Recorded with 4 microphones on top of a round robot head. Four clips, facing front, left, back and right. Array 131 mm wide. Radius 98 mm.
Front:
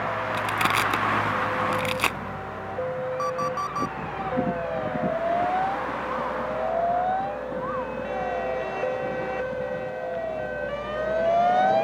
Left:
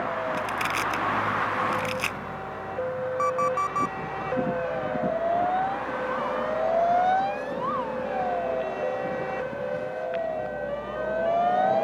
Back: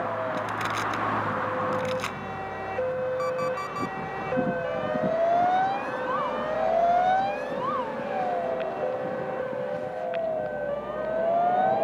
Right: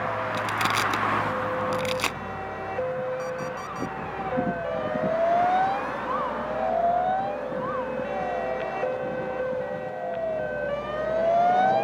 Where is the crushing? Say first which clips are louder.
Right 2 dB, front 4 dB; 25° right.